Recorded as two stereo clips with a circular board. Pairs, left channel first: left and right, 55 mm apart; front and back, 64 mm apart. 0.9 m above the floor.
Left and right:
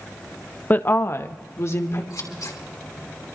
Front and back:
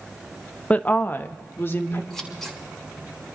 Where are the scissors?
85° left, 2.5 m.